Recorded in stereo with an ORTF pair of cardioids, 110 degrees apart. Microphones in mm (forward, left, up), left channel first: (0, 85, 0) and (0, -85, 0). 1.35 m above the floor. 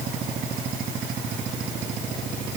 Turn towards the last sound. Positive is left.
No sound to turn to.